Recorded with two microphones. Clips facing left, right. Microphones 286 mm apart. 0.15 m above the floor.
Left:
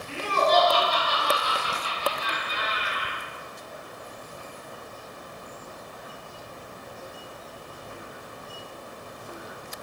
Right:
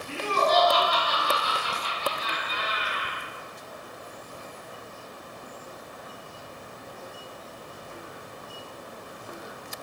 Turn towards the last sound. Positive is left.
turn(degrees=30)  # may be behind; listen again after turning